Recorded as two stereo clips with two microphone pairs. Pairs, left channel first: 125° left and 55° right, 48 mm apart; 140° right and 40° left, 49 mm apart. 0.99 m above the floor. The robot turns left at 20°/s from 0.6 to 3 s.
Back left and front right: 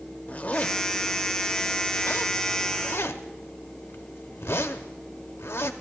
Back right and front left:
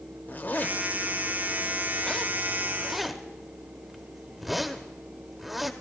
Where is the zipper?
Straight behind, 0.6 m; by 5.7 s 130° left, 0.6 m.